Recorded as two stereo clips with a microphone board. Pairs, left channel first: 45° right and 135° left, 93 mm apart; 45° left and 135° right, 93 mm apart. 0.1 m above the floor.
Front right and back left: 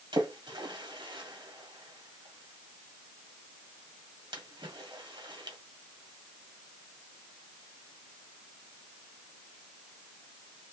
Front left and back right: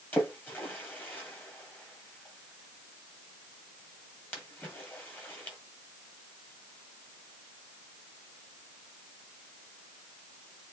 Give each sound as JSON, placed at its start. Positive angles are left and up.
{"t": 0.1, "sound": "a splash", "azimuth_deg": 110, "distance_m": 1.8}